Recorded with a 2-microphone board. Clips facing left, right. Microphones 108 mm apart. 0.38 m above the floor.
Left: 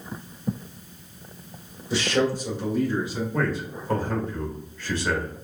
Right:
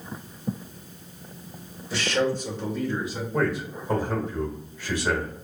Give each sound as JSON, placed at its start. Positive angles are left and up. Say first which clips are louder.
{"t": 1.9, "sound": "a man speaking", "louder": "left 2 dB", "side_deg": 20, "distance_m": 1.4}
{"t": 3.3, "sound": "a man speaking", "louder": "right 4 dB", "side_deg": -15, "distance_m": 1.0}